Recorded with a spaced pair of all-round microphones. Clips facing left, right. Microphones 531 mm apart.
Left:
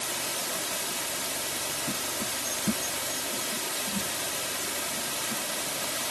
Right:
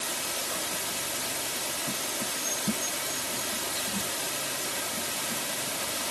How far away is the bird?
I don't hear a bird.